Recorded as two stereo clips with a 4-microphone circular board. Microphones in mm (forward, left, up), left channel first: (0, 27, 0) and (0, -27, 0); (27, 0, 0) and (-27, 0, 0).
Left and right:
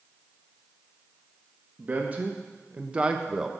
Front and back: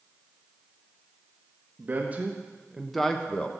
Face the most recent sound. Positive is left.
turn(degrees=-25)